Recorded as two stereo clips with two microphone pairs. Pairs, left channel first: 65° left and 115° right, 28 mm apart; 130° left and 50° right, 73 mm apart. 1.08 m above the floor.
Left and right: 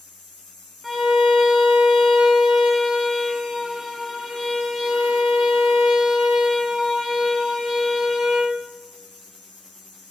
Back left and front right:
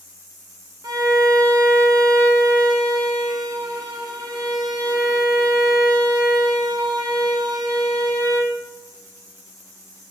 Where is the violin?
25° right, 1.3 m.